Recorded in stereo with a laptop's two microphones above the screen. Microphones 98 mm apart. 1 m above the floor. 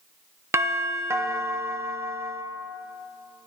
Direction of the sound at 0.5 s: 30° right (ahead or behind).